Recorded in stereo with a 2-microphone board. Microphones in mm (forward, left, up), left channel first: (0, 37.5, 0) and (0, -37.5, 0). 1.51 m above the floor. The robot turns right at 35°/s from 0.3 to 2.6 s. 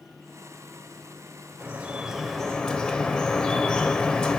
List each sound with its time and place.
1.6 s dripping: 20° right, 0.6 m; by 4.4 s 15° left, 0.6 m